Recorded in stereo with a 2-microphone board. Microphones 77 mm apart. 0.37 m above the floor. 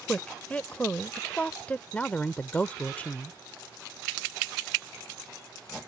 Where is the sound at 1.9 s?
20° left (ahead or behind).